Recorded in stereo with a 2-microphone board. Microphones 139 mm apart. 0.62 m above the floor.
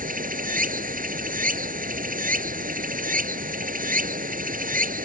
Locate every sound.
0.0 s running water: 75° right (ahead or behind)